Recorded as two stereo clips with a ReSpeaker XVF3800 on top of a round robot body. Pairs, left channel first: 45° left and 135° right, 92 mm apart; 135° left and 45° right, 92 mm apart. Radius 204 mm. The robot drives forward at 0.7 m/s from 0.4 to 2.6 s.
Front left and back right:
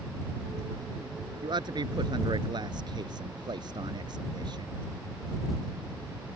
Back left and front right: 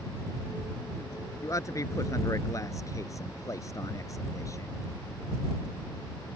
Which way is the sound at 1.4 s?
170° right.